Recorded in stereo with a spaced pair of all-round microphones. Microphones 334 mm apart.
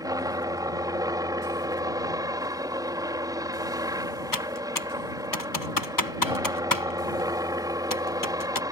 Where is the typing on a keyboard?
75° left (ahead or behind).